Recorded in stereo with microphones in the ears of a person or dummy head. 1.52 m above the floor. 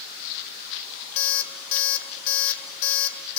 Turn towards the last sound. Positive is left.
turn(degrees=65)  # may be behind; listen again after turning